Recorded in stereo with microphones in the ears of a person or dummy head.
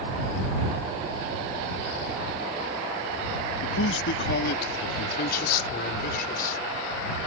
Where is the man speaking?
75° left (ahead or behind); by 7.2 s 50° left (ahead or behind).